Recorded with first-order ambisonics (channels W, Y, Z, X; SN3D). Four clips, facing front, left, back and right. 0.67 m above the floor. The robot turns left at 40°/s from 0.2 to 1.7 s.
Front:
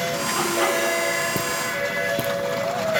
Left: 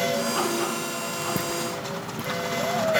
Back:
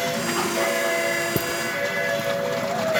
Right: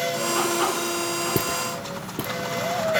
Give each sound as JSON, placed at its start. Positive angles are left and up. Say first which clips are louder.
{"t": 1.4, "sound": "footsteps", "louder": "right 2 dB, even", "azimuth_deg": -125, "distance_m": 0.6}